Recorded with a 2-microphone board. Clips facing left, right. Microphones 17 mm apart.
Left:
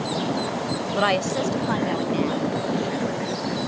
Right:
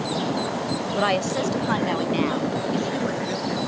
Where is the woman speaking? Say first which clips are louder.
Left 1 dB; 20° left (ahead or behind); by 3.7 s 25° right (ahead or behind).